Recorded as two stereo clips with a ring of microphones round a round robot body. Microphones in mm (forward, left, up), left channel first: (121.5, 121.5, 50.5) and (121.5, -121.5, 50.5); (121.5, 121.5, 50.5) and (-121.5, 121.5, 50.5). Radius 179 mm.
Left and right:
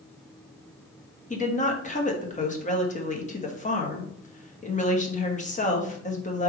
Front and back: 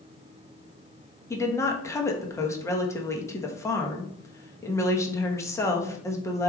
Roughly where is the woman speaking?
Left.